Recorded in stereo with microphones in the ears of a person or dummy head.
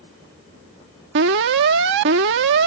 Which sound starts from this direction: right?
An alarm, at 1.1 s.